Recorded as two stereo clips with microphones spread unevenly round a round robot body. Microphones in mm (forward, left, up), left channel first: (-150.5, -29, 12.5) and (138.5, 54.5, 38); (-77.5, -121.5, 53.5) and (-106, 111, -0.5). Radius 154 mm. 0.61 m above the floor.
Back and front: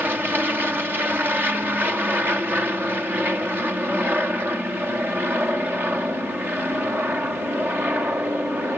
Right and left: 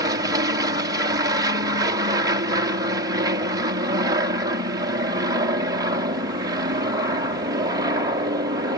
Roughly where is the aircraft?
Left.